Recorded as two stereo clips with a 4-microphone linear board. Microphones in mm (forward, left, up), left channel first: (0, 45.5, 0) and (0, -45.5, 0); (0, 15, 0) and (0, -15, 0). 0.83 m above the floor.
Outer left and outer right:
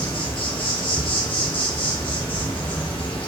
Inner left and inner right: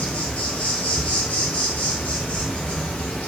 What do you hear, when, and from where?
0.0 s an insect: 65° left (ahead or behind), 0.7 m